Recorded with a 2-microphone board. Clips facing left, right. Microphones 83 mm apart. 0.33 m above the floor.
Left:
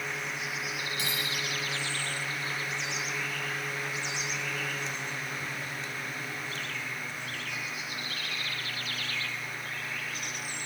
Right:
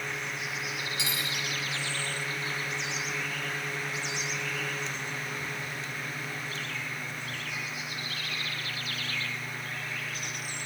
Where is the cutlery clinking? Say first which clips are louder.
Even; 45° left (ahead or behind), 3.5 m.